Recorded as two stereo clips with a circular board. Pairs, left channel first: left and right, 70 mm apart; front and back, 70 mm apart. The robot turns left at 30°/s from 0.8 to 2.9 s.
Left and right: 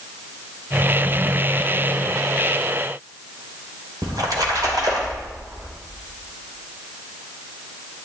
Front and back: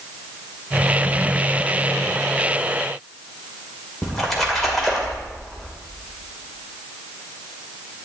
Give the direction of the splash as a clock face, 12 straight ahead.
3 o'clock.